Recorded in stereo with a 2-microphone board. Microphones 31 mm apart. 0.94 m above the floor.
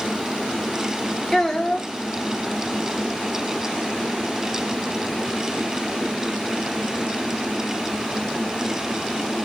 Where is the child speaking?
10° left (ahead or behind), 1.9 m.